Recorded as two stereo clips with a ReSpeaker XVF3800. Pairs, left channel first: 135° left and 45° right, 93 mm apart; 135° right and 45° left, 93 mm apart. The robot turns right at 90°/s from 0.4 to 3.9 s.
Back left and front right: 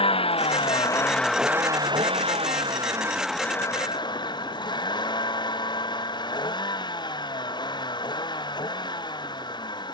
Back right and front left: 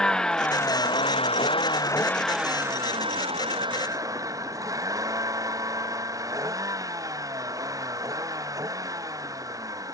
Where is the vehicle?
140° left; by 9.9 s 95° left.